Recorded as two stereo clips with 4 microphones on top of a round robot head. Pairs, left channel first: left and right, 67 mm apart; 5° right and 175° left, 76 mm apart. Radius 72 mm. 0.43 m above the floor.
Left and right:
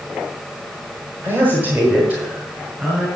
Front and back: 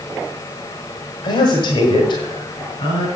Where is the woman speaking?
30° right, 1.8 m; by 3.1 s 15° right, 3 m.